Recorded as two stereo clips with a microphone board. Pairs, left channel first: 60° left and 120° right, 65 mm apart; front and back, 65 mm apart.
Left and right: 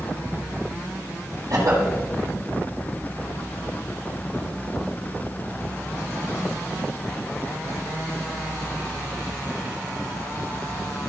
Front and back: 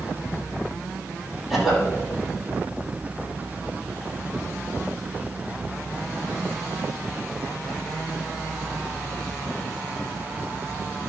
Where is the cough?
95° right, 4.5 m.